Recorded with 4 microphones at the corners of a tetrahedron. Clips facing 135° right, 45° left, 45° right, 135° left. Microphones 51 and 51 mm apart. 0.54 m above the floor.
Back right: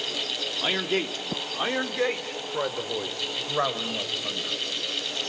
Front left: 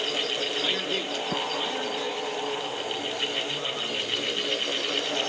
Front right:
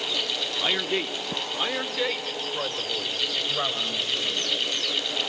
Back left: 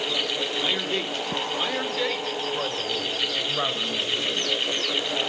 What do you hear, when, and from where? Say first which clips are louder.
0.6 s a man speaking: back right 2 dB, front right 4 dB; 90° right, 1.3 m; by 4.6 s 145° right, 3.5 m